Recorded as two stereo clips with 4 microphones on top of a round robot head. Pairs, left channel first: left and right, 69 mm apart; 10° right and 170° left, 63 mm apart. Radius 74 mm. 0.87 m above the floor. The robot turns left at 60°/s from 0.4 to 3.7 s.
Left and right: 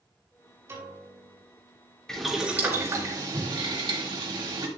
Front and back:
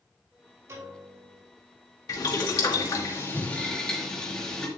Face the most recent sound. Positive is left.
turn(degrees=-90)